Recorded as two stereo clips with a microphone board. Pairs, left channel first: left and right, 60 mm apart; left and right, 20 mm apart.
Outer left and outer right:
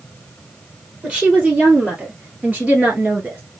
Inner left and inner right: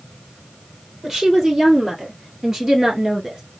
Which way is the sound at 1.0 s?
25° right (ahead or behind).